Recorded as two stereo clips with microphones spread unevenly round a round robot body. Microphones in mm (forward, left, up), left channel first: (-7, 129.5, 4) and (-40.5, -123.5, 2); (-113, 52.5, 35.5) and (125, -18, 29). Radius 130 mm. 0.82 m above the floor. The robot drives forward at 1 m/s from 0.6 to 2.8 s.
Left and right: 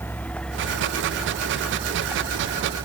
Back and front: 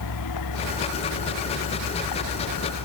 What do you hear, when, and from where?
0.0 s a vehicle: 165° left; by 2.9 s 170° right